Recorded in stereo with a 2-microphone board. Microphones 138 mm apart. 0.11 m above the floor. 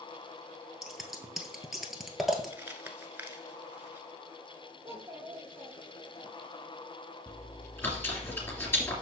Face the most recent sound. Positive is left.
turn(degrees=20)  # may be behind; listen again after turning